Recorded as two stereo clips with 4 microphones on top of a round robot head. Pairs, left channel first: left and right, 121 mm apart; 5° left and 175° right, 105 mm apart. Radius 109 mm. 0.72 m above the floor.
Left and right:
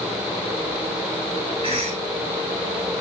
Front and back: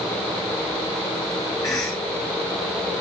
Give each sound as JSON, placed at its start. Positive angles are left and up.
{"t": 1.6, "sound": "a cough", "azimuth_deg": -45, "distance_m": 3.0}